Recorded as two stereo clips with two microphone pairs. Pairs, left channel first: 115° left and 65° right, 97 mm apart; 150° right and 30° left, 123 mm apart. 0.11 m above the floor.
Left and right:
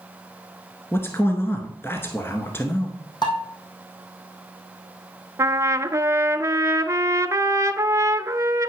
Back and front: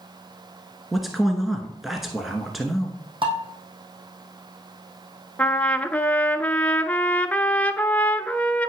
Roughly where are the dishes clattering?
Left.